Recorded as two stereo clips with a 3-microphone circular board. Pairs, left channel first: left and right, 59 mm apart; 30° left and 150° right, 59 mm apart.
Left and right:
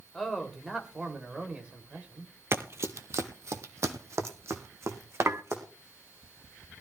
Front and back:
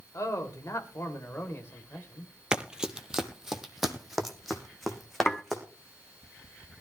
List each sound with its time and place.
0.1 s a man speaking: 5° left, 2.5 m; by 2.3 s 30° right, 3 m
2.5 s running footsteps: 80° right, 1.0 m; by 5.6 s 60° right, 3 m
5.3 s dishes clattering: 55° right, 0.8 m